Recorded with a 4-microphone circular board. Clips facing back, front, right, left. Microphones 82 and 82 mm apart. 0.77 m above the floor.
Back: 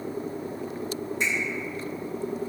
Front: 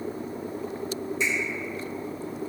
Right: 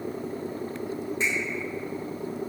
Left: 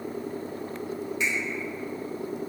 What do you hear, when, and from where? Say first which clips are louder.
1.2 s a finger snap: front 1 dB, right 1 dB; 145° right, 1.2 m